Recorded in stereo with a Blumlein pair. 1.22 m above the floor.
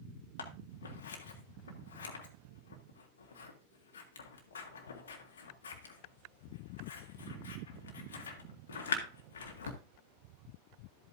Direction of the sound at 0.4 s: 65° left.